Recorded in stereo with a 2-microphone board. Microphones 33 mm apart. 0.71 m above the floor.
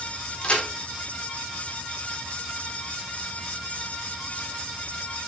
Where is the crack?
35° left (ahead or behind), 1.9 m.